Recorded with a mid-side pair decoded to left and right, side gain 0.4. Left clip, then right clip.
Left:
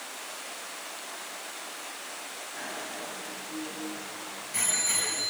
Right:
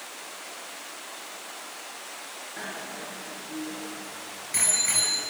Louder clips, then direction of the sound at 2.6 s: Right 1 dB; 60° right.